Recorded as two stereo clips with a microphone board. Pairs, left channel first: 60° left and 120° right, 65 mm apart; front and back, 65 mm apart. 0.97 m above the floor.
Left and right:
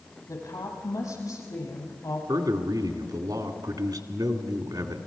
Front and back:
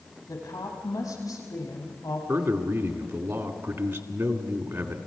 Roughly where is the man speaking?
Behind right.